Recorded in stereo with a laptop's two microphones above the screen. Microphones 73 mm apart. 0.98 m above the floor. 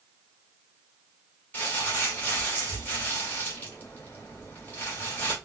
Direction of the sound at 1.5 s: 25° left (ahead or behind).